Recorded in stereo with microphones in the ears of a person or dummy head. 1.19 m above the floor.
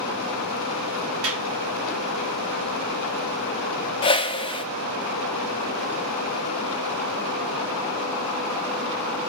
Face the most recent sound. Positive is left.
turn(degrees=25)  # may be behind; listen again after turning